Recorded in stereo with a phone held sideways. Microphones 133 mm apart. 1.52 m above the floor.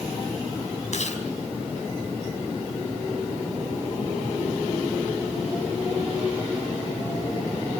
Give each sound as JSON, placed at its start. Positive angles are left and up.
{"t": 0.9, "sound": "chewing", "side_deg": 60, "distance_m": 4.5}